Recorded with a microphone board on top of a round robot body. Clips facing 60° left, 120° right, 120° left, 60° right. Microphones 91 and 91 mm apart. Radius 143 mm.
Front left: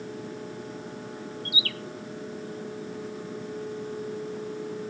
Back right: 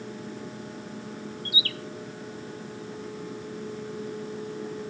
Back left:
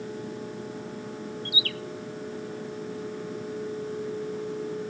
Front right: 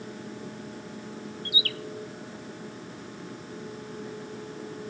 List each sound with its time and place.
1.4 s a bird: 80° right, 1.2 m